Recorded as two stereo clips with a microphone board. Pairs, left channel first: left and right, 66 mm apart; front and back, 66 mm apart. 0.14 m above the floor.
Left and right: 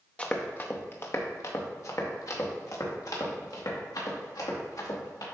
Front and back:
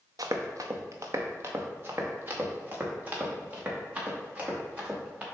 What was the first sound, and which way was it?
Running footsteps, 160° left.